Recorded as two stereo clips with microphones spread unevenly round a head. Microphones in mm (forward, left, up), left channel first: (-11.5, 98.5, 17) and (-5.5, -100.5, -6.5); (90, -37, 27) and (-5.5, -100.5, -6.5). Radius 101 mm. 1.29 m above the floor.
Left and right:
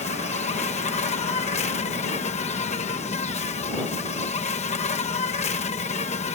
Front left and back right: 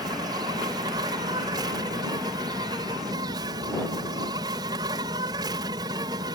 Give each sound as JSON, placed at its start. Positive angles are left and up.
{"t": 0.0, "sound": "an insect", "azimuth_deg": 150}